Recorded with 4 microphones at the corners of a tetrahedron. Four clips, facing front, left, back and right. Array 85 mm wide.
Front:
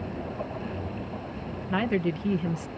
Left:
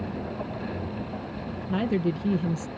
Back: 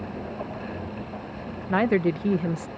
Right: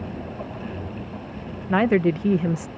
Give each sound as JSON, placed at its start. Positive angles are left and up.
{"t": 1.7, "sound": "a woman speaking", "azimuth_deg": -115}